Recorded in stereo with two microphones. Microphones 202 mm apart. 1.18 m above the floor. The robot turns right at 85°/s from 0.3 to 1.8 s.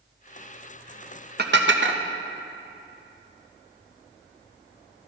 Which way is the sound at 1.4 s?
50° right (ahead or behind).